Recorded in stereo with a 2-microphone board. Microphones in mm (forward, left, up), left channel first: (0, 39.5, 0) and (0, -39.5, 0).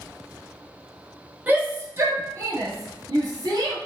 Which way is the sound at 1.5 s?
20° right (ahead or behind).